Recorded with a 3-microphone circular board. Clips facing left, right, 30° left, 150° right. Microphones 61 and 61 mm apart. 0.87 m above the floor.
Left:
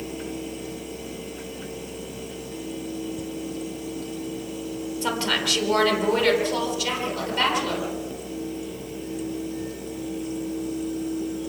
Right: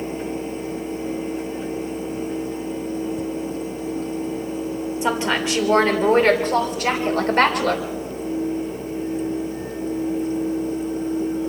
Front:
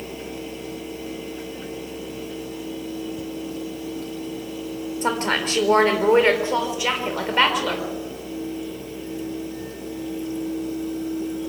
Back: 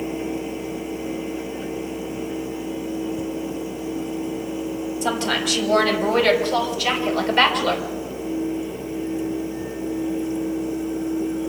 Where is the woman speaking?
20° right, 3.5 m; by 7.9 s 55° right, 3.5 m.